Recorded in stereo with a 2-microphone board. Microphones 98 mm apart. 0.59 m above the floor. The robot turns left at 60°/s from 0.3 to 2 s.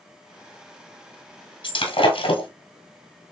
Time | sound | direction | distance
1.6 | breaking glass | 60° left (ahead or behind) | 1.4 m